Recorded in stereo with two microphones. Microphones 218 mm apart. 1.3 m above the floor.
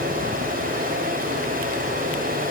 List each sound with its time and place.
0.0 s running water: 40° right (ahead or behind), 6.5 m